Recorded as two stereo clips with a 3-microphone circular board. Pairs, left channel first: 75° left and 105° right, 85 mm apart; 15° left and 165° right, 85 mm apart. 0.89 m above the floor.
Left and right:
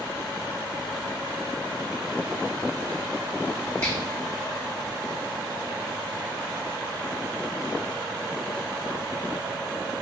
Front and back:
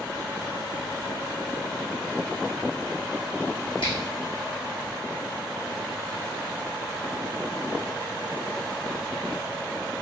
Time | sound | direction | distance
3.8 | a finger snap | 10° left | 1.8 m